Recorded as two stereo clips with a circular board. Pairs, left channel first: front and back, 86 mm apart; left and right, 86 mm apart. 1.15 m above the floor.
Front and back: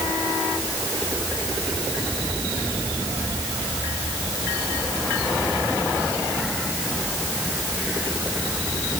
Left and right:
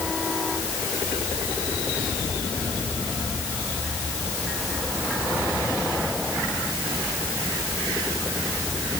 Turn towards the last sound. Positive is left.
No sound to turn to.